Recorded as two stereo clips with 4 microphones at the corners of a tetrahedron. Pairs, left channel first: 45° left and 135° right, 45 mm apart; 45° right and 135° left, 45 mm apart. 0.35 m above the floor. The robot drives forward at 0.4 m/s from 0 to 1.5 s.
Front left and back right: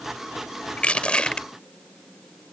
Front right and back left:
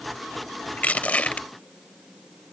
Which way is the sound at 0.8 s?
5° right.